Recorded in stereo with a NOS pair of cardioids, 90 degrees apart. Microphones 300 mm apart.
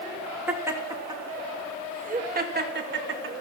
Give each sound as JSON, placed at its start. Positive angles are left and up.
{"t": 0.5, "sound": "laughter", "azimuth_deg": -5, "distance_m": 3.0}